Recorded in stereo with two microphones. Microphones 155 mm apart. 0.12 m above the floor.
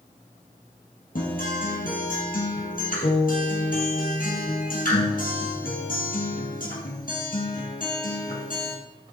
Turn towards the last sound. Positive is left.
turn(degrees=65)  # may be behind; listen again after turning